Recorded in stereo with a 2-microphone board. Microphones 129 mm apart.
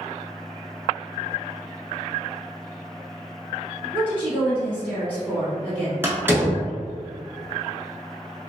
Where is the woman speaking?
10° right (ahead or behind), 1.6 m.